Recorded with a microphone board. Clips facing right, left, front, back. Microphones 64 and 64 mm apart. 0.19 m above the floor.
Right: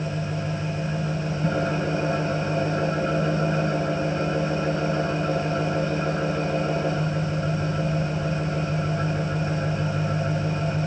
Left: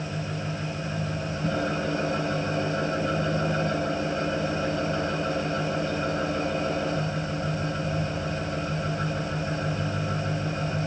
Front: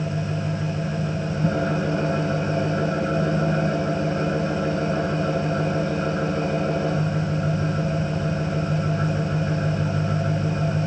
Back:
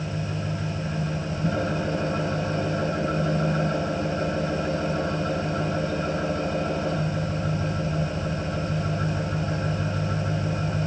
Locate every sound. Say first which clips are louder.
0.0 s an engine running: right 3 dB, front 4 dB; 20° right, 6 m